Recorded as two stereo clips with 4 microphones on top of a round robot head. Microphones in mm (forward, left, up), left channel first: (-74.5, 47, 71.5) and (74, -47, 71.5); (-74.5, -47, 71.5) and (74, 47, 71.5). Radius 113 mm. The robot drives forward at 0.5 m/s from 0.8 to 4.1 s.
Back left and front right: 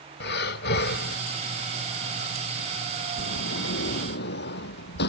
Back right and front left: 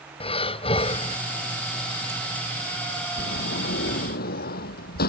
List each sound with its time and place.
0.2 s breathing: 155° left
3.2 s a sliding door: 175° left